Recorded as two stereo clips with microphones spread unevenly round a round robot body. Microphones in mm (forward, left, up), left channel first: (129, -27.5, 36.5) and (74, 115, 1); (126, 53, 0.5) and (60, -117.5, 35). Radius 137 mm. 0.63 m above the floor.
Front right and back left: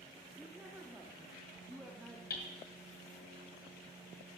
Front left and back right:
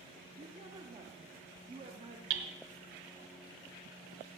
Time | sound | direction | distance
0.4 | a woman speaking | 175° right | 0.9 m
2.3 | hammering | 125° right | 1.0 m